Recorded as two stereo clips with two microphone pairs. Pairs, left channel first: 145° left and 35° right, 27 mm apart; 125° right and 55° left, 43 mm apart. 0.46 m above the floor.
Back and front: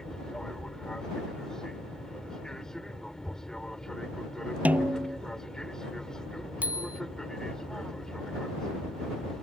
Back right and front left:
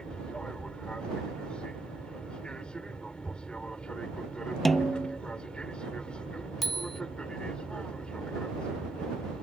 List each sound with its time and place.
0.0 s an aircraft: 170° right
4.7 s a snare drum: 40° right
6.6 s a bicycle bell: 40° right